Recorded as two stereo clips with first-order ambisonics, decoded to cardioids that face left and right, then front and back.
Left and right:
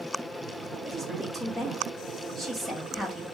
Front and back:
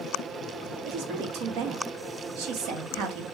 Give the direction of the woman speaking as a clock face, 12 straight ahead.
6 o'clock.